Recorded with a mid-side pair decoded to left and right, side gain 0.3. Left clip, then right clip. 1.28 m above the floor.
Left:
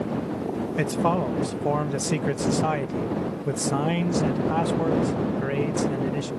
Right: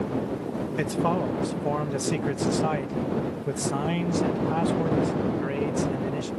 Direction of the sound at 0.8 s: 25° left.